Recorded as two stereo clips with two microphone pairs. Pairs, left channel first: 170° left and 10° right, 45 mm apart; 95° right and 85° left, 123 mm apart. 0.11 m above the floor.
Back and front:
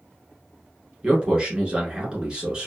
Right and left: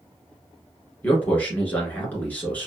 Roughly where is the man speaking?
Ahead right.